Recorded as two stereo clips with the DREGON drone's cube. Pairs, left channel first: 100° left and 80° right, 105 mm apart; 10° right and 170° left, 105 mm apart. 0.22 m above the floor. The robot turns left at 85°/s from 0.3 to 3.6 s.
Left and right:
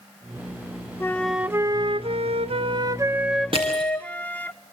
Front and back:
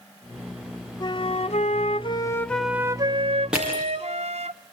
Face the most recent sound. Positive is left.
turn(degrees=-115)